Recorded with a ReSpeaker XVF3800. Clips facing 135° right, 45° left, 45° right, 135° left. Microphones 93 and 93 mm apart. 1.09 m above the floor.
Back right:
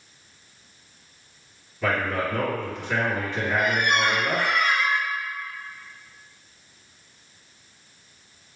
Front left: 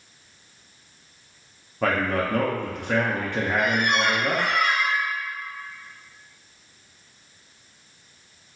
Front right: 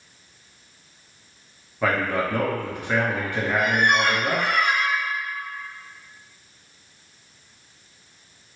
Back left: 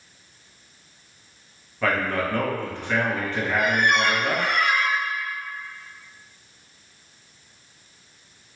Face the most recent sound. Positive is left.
turn(degrees=25)